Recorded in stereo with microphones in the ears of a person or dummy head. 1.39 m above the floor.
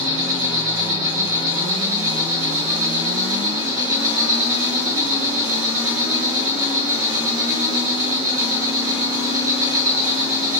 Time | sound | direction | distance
0.0 | an insect | 20° right (ahead or behind) | 5 m